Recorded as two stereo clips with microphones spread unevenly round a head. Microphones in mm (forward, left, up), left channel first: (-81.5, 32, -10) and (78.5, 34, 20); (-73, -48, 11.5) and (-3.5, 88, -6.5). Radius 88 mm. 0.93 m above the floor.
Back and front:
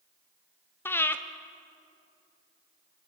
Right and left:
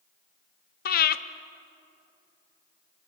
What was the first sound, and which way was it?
Breathing, 110° right.